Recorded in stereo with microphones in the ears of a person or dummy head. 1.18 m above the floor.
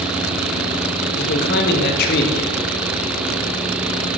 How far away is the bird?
No bird in this recording.